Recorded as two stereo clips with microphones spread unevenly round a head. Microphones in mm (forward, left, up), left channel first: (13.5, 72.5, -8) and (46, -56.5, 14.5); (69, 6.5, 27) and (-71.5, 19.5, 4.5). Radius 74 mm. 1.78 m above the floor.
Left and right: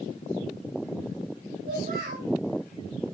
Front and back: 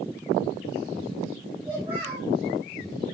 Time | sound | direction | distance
1.6 | a child speaking | 105° right | 9 m